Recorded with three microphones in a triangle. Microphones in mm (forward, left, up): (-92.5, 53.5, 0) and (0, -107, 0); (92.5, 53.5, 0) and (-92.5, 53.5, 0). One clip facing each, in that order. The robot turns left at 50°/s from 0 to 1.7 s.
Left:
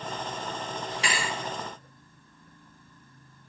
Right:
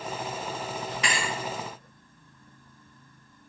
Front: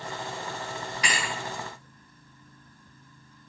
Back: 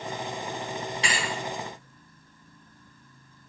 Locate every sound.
1.0 s a thud: 145° left, 1.3 m; by 1.3 s 130° left, 1.3 m